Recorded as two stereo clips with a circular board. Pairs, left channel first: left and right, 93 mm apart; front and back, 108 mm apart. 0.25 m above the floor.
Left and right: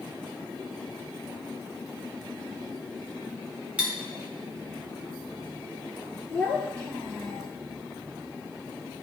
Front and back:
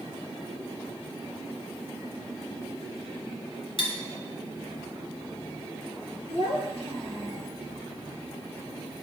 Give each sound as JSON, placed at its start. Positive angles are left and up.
{"t": 3.8, "sound": "cutlery clinking", "azimuth_deg": -15, "distance_m": 1.4}
{"t": 6.3, "sound": "a child speaking", "azimuth_deg": 15, "distance_m": 2.5}